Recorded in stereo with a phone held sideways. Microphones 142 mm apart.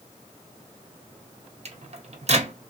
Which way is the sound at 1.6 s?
50° right (ahead or behind).